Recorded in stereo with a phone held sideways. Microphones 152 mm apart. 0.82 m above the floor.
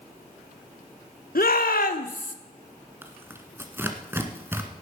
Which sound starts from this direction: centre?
Tearing paper, at 3.0 s.